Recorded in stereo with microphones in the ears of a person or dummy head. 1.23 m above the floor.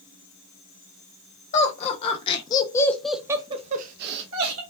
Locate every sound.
1.5 s laughter: 45° left (ahead or behind), 1.2 m; by 4.6 s 65° right (ahead or behind), 0.8 m